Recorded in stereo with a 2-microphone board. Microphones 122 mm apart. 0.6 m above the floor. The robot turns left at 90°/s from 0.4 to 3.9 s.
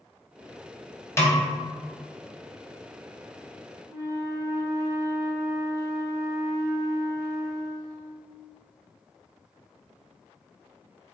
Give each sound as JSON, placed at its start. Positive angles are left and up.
{"t": 1.2, "sound": "a snare drum", "side_deg": 20, "distance_m": 0.8}
{"t": 3.9, "sound": "a flute", "side_deg": -30, "distance_m": 0.8}